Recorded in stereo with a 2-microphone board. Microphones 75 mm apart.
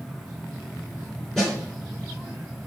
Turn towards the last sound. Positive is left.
turn(degrees=5)  # may be behind; listen again after turning